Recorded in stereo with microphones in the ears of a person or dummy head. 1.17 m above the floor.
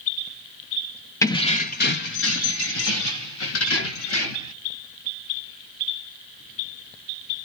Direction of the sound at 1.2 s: 15° left (ahead or behind).